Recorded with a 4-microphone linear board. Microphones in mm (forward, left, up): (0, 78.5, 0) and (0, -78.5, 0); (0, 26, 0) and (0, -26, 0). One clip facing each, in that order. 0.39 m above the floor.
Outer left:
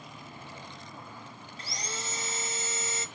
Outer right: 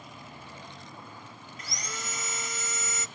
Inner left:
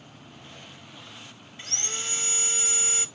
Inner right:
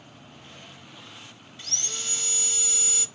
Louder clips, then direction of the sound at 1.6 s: Outer left 1 dB, inner left 2 dB; 30° left (ahead or behind).